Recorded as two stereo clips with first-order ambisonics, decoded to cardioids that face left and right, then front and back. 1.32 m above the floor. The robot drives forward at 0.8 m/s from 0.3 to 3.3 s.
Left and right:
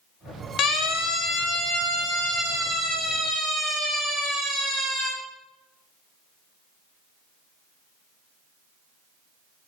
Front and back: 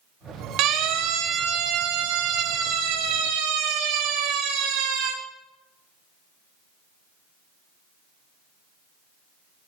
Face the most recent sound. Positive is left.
turn(degrees=175)